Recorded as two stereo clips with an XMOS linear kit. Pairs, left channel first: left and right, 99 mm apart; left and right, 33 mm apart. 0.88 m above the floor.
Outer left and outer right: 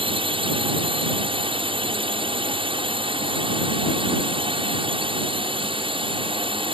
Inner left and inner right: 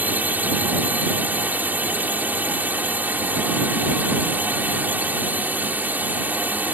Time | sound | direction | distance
0.0 | a drone | 60° right (ahead or behind) | ?